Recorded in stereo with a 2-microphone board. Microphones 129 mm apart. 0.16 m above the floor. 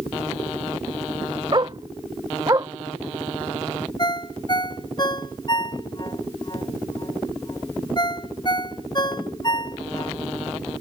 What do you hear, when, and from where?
1.5 s a dog barking: 35° right (ahead or behind); by 2.7 s 25° right (ahead or behind)
4.0 s a ringtone: 35° left (ahead or behind)